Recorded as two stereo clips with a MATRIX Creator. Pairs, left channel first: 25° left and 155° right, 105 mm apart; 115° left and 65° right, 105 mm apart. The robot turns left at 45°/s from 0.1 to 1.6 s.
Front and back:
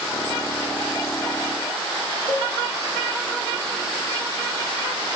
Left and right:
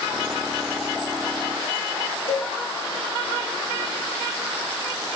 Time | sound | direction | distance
2.3 | a cowbell | 85° left | 1.1 m